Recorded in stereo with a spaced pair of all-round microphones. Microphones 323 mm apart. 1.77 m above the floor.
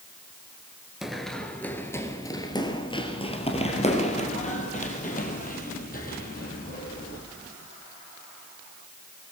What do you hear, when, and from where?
1.0 s running footsteps: centre (ahead or behind), 1.9 m; by 7.2 s 30° left (ahead or behind), 4.5 m